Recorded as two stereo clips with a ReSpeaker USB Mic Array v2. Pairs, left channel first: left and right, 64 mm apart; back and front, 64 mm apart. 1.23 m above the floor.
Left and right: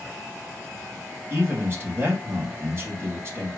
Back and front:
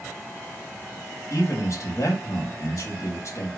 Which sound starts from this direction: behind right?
A man speaking, at 1.3 s.